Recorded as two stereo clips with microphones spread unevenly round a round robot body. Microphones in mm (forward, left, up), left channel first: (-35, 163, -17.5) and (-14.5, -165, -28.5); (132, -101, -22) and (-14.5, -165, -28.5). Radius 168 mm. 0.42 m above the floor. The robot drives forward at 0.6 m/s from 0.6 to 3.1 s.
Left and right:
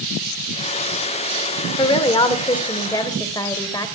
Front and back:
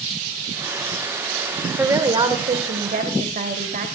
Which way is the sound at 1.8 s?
150° left.